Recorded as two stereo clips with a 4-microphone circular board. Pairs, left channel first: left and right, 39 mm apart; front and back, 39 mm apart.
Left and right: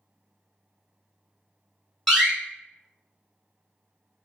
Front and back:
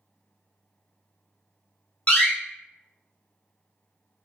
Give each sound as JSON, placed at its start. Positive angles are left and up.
{"t": 2.1, "sound": "a door slam", "azimuth_deg": 10, "distance_m": 1.1}